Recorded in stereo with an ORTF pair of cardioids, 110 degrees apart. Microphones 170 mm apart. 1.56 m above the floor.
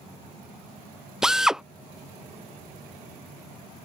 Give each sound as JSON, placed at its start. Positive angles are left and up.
{"t": 1.2, "sound": "a drill", "azimuth_deg": -5}